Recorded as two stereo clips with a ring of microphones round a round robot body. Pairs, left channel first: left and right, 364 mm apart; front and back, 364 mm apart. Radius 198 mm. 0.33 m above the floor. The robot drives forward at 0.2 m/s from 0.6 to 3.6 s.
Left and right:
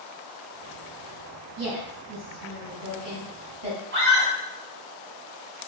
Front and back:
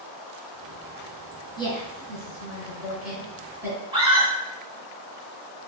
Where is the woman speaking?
70° right, 1.3 m; by 3.8 s 100° right, 1.3 m.